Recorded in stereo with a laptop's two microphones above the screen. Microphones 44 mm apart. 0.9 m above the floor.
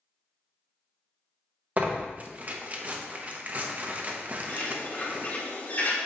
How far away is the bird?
About 1.6 m.